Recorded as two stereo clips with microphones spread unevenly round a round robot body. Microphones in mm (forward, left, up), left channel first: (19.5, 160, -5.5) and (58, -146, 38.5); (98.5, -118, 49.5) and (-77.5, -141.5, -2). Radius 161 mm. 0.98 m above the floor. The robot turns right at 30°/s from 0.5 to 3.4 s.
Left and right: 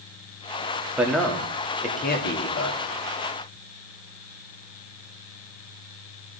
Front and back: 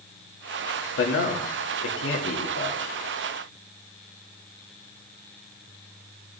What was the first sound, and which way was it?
A man speaking, 5° left.